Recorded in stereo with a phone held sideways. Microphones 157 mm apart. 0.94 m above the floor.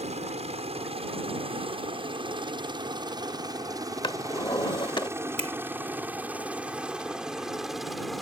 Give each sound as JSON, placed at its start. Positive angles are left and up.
{"t": 0.0, "sound": "a helicopter", "side_deg": -45}
{"t": 4.0, "sound": "a drawer", "side_deg": 30}
{"t": 5.4, "sound": "a finger snap", "side_deg": -40}